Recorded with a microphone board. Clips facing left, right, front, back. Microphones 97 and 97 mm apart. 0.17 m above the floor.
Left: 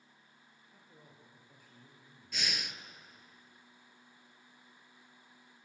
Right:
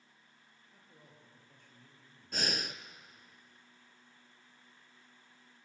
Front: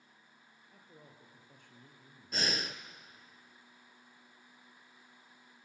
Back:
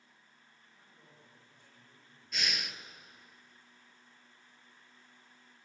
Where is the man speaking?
5° left, 4 m; by 2.8 s 15° left, 2.5 m.